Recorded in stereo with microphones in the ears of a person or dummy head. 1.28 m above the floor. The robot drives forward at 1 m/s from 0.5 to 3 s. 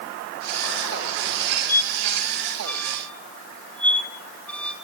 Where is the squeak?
15° left (ahead or behind), 1.4 m; by 4.8 s 10° left (ahead or behind), 2.5 m.